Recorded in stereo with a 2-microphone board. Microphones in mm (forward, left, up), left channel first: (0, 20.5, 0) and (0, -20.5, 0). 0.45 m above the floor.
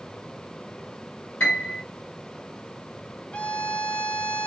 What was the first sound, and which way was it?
A piano, 45° left (ahead or behind).